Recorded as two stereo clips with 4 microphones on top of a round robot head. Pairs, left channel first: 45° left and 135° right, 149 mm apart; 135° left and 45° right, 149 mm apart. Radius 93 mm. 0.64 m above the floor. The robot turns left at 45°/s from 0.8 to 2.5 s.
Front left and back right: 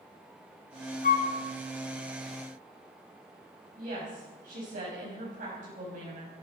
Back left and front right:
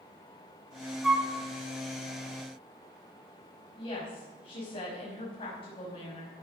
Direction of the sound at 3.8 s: 170° right.